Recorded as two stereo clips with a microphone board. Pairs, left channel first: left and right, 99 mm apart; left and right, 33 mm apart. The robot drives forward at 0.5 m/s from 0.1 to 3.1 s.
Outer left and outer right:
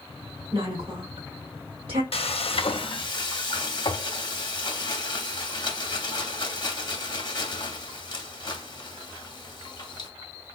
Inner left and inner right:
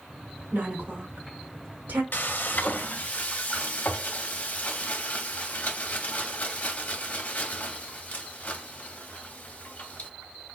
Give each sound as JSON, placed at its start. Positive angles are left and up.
{"t": 0.5, "sound": "a woman speaking", "side_deg": -45, "distance_m": 1.6}
{"t": 2.1, "sound": "frying", "side_deg": 70, "distance_m": 0.5}